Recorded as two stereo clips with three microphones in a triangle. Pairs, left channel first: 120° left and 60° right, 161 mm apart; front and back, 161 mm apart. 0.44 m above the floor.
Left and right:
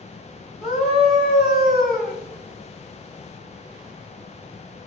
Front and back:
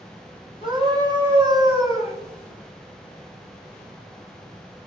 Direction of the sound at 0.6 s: 120° left.